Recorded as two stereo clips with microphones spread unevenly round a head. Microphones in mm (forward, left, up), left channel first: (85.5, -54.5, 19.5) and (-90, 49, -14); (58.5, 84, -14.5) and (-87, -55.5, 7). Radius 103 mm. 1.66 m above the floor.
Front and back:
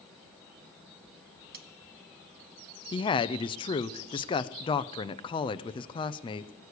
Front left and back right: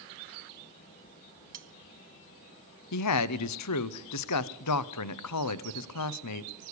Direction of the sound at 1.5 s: 165° right.